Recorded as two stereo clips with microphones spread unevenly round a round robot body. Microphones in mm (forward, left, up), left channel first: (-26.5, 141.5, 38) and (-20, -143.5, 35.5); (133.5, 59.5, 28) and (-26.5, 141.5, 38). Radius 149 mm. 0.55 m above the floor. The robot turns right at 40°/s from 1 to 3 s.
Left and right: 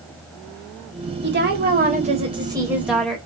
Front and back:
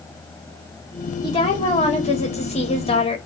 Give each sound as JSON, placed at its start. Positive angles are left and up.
{"t": 1.2, "sound": "a woman speaking", "azimuth_deg": -70, "distance_m": 1.2}